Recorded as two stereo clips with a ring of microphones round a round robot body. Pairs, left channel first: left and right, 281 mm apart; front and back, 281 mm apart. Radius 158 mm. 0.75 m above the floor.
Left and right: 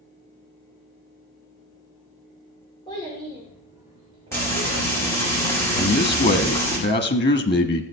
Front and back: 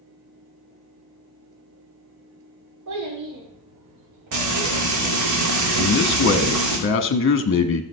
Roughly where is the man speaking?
Ahead left.